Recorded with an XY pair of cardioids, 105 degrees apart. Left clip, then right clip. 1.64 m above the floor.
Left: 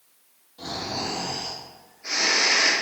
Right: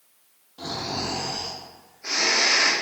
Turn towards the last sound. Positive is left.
turn(degrees=-50)